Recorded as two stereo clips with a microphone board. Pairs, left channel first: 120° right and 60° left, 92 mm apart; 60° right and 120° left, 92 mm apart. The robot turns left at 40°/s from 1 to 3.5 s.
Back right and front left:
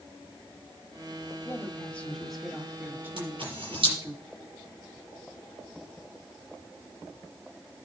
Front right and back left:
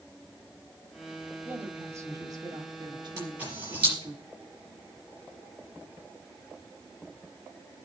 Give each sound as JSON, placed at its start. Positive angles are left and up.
{"t": 1.4, "sound": "a woman speaking", "azimuth_deg": -175, "distance_m": 1.7}
{"t": 3.2, "sound": "a camera shutter", "azimuth_deg": 60, "distance_m": 5.5}